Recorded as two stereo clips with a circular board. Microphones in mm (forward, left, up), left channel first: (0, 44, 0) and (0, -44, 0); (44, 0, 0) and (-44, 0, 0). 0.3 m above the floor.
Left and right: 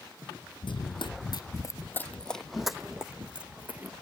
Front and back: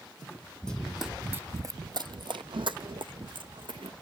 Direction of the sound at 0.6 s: 80° left.